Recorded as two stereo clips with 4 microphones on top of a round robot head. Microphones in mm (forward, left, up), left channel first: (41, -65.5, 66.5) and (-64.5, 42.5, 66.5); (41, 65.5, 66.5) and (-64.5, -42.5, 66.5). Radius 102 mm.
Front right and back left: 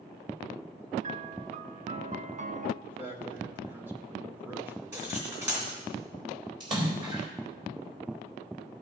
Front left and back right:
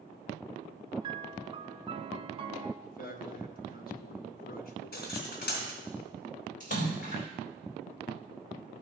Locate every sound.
1.0 s a piano: 175° left, 0.6 m
2.8 s a man speaking: 60° left, 1.6 m
4.9 s cutlery clinking: 65° left, 3 m
6.6 s a splash: 75° left, 3.5 m